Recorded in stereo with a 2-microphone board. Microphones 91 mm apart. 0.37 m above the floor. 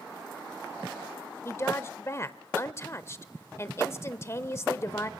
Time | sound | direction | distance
1.4 | a woman speaking | 30° left (ahead or behind) | 1.0 m